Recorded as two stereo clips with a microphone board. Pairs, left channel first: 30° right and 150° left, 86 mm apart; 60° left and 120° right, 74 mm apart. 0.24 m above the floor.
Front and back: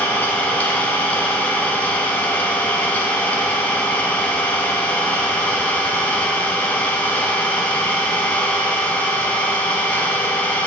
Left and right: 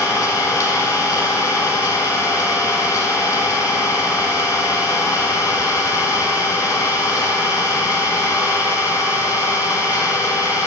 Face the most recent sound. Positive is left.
turn(degrees=35)